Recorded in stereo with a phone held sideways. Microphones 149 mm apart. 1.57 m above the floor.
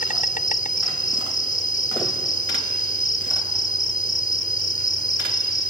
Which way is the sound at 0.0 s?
65° left (ahead or behind).